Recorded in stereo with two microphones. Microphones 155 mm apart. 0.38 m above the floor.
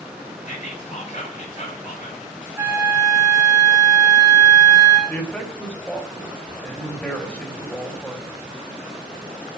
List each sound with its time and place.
0.5 s whispering: 50° left (ahead or behind), 4 m
2.6 s a flute: 15° right (ahead or behind), 3 m
5.1 s a man speaking: 10° left (ahead or behind), 1.9 m